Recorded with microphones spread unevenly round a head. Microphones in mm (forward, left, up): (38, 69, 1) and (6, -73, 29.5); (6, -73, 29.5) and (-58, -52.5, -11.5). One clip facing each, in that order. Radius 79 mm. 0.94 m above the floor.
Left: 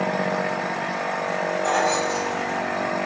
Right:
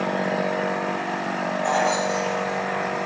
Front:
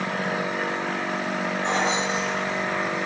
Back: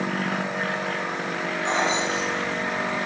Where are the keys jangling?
Straight ahead, 4.5 m.